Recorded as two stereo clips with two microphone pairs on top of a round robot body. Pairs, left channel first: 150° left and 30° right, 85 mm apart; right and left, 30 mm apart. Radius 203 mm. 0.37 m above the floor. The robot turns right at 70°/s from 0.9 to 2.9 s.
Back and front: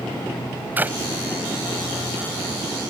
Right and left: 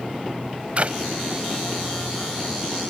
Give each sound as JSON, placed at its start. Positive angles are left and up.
{"t": 0.8, "sound": "a clap", "azimuth_deg": 40}